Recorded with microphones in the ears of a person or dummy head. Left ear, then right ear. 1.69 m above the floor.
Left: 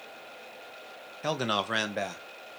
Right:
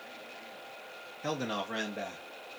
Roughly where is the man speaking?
Left.